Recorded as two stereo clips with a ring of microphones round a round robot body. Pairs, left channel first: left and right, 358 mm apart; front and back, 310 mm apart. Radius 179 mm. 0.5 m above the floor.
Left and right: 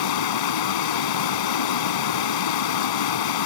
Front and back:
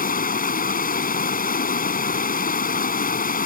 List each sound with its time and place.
0.0 s running water: 65° left